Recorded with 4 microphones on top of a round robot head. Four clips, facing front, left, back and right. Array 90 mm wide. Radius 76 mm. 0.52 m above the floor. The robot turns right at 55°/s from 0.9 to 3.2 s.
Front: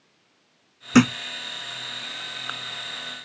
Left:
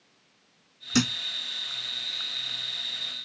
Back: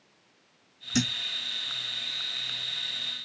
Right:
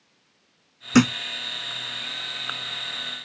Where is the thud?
35° right; by 1.2 s 20° right.